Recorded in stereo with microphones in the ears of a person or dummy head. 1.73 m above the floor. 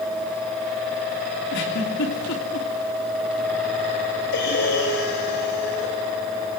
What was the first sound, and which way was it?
A giggle, 60° left (ahead or behind).